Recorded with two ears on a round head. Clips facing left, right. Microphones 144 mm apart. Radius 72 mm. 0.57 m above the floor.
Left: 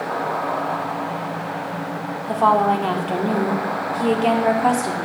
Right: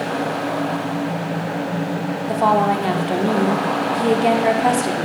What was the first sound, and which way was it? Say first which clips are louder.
A woman speaking: even; 10° right (ahead or behind).